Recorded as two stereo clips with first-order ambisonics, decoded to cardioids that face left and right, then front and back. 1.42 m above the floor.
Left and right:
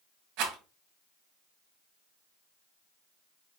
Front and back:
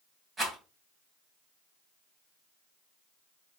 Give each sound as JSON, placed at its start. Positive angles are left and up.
{"t": 0.4, "sound": "a rattle", "azimuth_deg": -100, "distance_m": 1.8}